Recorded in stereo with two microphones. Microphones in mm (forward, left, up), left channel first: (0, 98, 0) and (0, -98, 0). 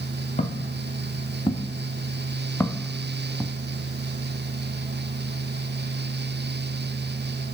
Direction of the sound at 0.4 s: 35° left (ahead or behind).